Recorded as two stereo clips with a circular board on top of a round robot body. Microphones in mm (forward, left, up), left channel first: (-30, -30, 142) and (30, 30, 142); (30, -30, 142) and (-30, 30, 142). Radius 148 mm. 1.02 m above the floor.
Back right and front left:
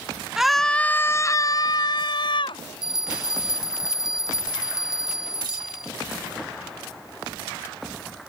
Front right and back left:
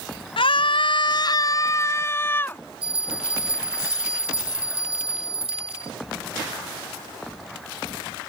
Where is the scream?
40° right; by 2.6 s 115° right.